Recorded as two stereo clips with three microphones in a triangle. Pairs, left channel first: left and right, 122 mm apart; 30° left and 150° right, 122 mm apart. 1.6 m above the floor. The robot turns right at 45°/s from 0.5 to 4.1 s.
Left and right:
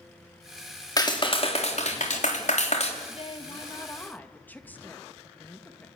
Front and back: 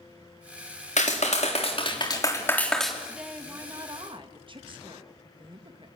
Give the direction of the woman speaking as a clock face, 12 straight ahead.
8 o'clock.